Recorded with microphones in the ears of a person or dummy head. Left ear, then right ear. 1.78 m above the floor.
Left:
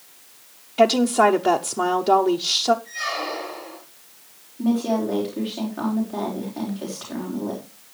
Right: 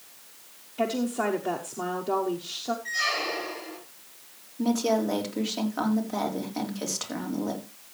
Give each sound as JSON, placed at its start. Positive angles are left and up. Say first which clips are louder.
{"t": 0.8, "sound": "a woman speaking", "louder": "left 12 dB", "side_deg": 40, "distance_m": 0.6}
{"t": 2.9, "sound": "a squeak", "louder": "even", "side_deg": -80, "distance_m": 9.0}
{"t": 4.6, "sound": "a woman speaking", "louder": "left 2 dB", "side_deg": -85, "distance_m": 4.5}